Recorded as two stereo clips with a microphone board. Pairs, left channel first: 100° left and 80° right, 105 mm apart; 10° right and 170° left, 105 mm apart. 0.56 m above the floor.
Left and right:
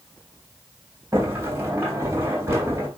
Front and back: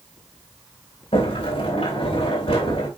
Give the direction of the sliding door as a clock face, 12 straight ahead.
12 o'clock.